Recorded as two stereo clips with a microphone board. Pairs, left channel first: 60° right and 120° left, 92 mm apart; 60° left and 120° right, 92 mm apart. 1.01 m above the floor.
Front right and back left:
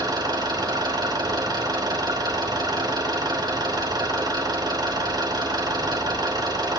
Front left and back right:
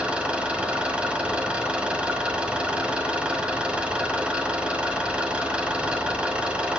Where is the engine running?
160° left, 2 m.